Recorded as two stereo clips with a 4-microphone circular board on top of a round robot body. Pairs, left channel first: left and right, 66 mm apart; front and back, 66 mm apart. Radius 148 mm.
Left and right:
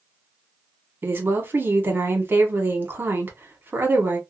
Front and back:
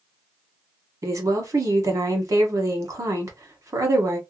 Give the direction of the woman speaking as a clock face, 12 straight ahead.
5 o'clock.